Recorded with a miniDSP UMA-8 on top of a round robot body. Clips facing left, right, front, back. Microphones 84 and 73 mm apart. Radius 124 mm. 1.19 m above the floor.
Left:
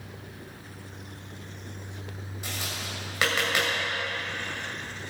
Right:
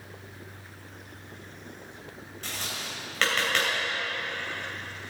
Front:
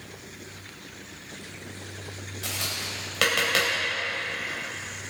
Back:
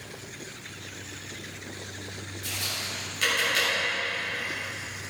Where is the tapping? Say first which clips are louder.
Even, front 2 dB; 10° left, 3 m.